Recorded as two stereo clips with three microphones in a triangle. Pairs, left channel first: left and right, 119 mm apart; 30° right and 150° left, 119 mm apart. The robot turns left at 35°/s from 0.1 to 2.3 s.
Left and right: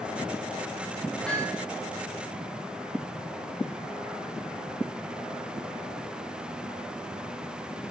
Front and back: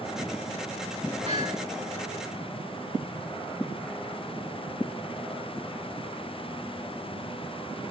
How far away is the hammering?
About 8.5 m.